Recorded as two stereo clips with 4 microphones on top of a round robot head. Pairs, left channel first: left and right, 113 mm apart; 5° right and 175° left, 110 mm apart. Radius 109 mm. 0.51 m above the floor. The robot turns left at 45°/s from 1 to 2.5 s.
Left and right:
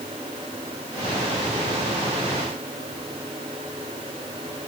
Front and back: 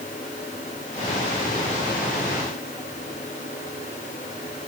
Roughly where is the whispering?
No whispering in this recording.